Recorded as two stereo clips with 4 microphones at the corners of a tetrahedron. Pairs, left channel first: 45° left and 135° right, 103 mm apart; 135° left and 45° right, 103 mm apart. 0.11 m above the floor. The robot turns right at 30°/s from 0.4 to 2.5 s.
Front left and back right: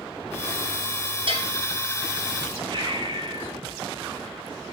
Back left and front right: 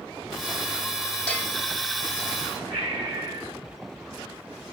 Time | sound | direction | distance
1.3 | a bell | 145° right | 3.5 m
2.7 | breathing | 95° right | 2.5 m